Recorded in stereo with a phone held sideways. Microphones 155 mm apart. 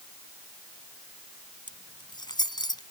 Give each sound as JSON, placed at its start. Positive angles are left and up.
{"t": 1.7, "sound": "keys jangling", "side_deg": 30}